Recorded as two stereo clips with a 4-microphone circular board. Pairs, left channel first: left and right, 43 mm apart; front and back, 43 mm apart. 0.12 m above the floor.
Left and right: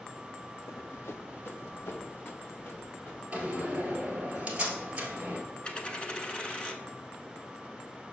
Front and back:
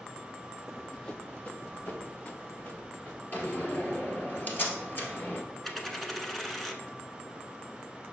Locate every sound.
0.7 s running footsteps: 100° left, 0.5 m; by 3.2 s 45° left, 4 m
3.3 s a door slam: 35° right, 1.6 m
5.6 s a dropped coin: 85° left, 0.7 m